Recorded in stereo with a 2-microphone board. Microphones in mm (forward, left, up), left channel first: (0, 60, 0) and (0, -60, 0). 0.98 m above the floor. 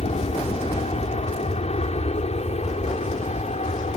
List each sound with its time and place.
0.0 s an aircraft: 65° left (ahead or behind)